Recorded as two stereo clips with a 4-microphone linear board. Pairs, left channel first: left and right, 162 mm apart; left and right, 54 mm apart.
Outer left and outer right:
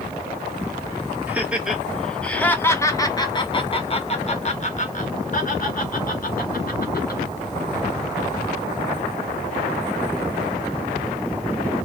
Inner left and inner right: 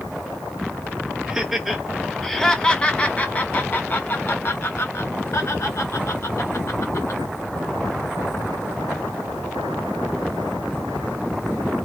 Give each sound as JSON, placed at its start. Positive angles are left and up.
{"t": 1.3, "sound": "laughter", "side_deg": -10, "distance_m": 1.6}